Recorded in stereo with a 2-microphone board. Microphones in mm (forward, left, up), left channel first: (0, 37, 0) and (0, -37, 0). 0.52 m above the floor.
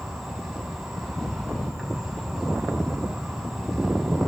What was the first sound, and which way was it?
An insect, 5° right (ahead or behind).